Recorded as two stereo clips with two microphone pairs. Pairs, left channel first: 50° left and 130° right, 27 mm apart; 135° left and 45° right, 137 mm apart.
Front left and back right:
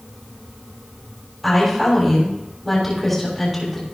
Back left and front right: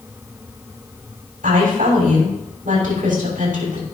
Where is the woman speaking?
35° right, 6.5 m.